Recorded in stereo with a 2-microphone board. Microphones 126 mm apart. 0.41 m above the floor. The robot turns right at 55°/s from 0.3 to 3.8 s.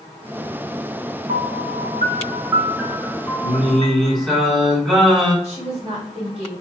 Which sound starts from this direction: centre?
Singing, at 3.4 s.